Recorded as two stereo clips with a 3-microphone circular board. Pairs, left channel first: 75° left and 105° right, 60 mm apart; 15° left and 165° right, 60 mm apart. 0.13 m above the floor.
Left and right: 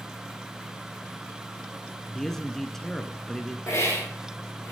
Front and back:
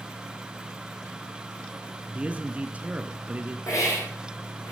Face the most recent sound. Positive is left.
turn(degrees=35)